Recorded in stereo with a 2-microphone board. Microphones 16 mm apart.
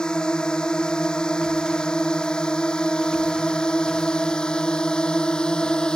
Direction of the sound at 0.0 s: 60° left (ahead or behind).